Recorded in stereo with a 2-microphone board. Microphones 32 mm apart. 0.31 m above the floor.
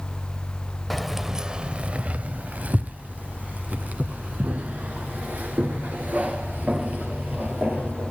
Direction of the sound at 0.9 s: Centre (ahead or behind).